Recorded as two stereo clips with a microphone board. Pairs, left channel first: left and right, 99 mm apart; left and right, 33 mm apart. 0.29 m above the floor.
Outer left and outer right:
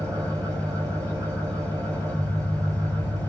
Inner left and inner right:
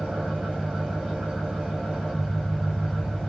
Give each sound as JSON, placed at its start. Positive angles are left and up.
{"t": 0.0, "sound": "an engine running", "side_deg": -30, "distance_m": 7.0}